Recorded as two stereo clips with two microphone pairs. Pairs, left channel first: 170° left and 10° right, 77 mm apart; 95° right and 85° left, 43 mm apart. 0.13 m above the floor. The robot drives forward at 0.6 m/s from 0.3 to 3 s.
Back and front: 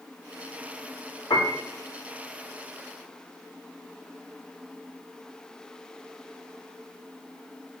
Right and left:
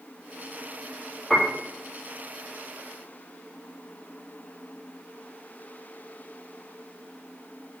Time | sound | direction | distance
1.3 | a piano | 175° left | 0.7 m